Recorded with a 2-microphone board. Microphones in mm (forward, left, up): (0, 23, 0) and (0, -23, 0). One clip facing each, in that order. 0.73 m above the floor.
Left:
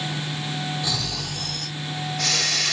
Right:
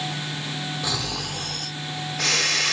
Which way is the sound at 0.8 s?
30° right (ahead or behind).